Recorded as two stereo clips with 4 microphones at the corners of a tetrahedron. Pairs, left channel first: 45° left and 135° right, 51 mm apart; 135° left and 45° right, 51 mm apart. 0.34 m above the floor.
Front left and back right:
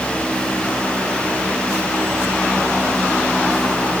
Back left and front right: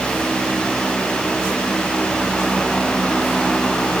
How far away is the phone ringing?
No phone ringing in this recording.